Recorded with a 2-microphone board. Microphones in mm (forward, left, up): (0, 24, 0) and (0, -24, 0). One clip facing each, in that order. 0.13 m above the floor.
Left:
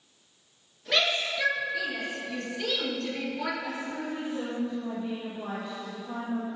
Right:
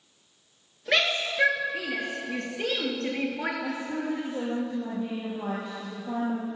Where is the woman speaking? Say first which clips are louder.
Right 3 dB; 55° right (ahead or behind), 4 m.